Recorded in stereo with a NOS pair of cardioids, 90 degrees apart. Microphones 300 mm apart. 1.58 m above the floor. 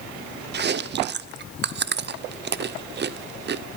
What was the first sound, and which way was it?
Chewing, 35° right.